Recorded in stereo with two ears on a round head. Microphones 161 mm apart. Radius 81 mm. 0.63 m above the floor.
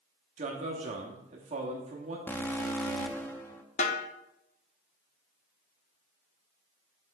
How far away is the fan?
I don't hear a fan.